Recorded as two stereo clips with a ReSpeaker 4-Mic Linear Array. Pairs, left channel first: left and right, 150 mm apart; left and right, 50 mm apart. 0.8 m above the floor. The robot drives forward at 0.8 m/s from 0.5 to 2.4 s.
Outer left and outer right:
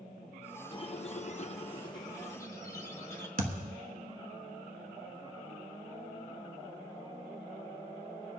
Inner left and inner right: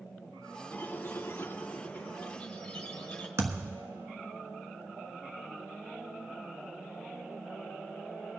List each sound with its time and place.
0.7 s a squeak: 35° left (ahead or behind), 0.6 m; by 3.3 s 20° left (ahead or behind), 1.0 m
3.4 s a thud: 65° right (ahead or behind), 1.5 m